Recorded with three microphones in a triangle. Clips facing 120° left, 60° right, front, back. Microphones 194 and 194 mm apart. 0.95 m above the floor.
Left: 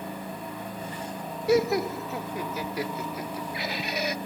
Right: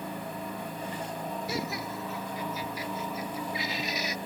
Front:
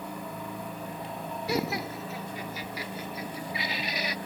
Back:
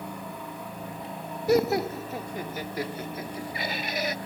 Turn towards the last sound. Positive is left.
turn(degrees=140)